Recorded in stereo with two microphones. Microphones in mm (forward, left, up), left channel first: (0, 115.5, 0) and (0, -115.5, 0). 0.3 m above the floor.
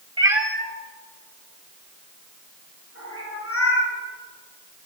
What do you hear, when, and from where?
0.2 s a cat meowing: 20° right (ahead or behind), 0.6 m; by 3.9 s 80° left, 3 m